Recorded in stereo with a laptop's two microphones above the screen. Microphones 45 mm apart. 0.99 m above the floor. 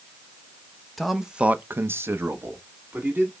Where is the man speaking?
Centre (ahead or behind), 0.9 m; by 3.3 s 50° right (ahead or behind), 2.0 m.